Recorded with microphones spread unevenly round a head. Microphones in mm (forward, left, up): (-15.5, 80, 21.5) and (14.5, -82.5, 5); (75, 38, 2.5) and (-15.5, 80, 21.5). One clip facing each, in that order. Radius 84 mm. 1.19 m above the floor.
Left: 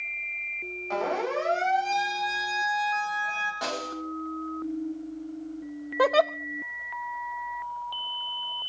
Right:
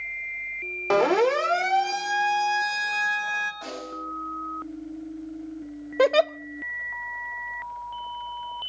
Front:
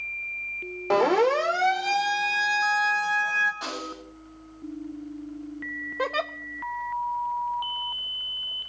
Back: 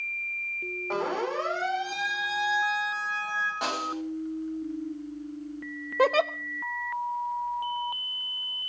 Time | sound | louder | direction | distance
0.9 | a siren | right 8 dB, front 9 dB | 70° right | 3 m
3.6 | a snare drum | left 3 dB, back 4 dB | 120° left | 7 m
6.0 | a giggle | right 3 dB, back 6 dB | 145° right | 0.7 m